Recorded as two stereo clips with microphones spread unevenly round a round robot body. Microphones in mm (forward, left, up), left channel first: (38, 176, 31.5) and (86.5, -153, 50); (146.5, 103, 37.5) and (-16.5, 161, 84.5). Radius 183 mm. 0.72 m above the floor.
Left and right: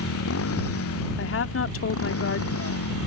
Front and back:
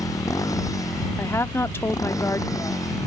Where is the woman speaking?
50° left.